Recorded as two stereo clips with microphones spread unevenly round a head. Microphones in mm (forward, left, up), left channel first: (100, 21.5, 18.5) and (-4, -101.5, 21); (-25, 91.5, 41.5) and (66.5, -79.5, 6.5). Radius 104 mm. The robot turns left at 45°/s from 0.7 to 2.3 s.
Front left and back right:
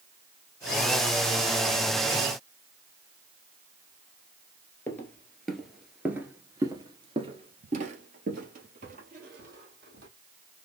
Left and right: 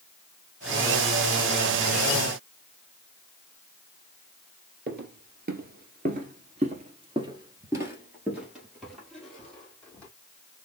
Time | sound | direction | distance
4.9 | footsteps | 25° right | 1.7 m